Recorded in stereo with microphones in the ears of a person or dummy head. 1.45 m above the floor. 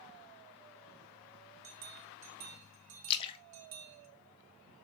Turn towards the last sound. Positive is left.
turn(degrees=25)  # may be behind; listen again after turning